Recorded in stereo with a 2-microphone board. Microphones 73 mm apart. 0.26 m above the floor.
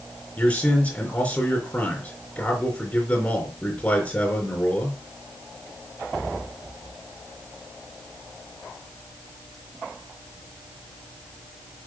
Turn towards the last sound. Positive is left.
turn(degrees=25)  # may be behind; listen again after turning